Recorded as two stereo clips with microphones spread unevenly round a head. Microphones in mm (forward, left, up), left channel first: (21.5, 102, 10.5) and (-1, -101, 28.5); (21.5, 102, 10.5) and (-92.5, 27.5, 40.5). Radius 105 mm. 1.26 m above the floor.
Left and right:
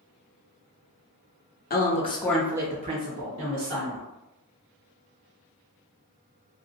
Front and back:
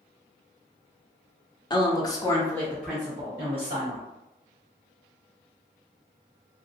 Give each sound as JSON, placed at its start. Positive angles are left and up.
{"t": 1.7, "sound": "a woman speaking", "azimuth_deg": 70, "distance_m": 0.8}